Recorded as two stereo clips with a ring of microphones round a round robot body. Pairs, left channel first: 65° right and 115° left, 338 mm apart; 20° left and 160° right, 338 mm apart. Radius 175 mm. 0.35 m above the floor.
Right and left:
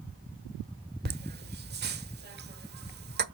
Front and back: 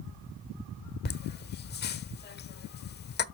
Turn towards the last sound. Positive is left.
turn(degrees=65)